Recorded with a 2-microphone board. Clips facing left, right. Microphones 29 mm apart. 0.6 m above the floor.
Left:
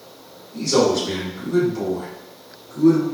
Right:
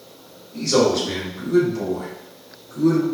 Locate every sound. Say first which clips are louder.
0.5 s a man speaking: even; centre (ahead or behind), 1.9 m; by 3.0 s 15° left (ahead or behind), 3.5 m